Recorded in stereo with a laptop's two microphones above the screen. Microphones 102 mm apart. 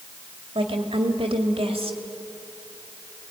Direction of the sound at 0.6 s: 70° right (ahead or behind).